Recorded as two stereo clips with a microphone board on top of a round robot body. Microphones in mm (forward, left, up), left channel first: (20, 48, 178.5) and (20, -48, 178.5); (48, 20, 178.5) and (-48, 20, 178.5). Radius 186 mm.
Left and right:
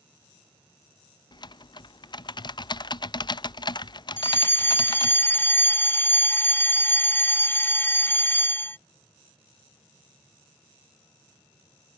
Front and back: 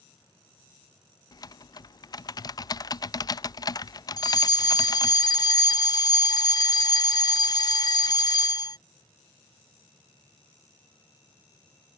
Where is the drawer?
No drawer in this recording.